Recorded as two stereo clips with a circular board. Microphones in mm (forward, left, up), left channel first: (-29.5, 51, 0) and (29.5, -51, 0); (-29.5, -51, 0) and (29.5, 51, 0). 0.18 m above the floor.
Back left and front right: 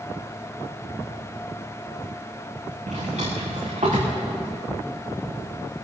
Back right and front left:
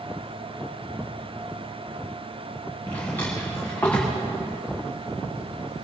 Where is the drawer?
45° right, 5 m.